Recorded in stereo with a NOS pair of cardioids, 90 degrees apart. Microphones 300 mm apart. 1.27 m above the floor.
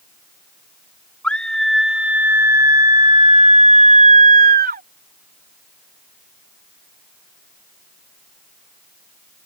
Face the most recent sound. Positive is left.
turn(degrees=-30)